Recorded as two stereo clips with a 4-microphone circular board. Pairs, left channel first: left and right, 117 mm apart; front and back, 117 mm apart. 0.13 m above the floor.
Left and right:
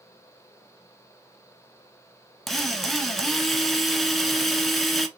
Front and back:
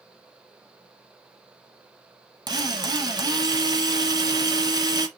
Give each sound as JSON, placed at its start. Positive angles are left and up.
{"t": 2.5, "sound": "a drill", "azimuth_deg": 180, "distance_m": 1.1}